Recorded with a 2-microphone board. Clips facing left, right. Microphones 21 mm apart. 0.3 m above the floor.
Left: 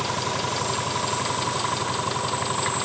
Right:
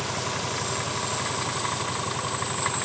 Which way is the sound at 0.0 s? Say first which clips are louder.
Left 3 dB; 30° left (ahead or behind).